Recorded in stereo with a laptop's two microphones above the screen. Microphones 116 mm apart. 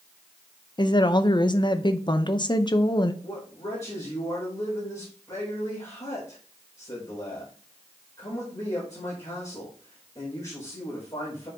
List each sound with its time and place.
0.8 s a woman speaking: 40° left (ahead or behind), 0.5 m
3.2 s a man speaking: 25° left (ahead or behind), 5 m